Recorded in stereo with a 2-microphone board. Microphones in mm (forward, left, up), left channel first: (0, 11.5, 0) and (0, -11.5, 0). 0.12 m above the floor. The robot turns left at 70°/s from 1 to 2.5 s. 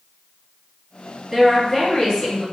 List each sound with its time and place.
1.3 s a woman speaking: 160° right, 1.9 m; by 2.4 s 120° left, 1.9 m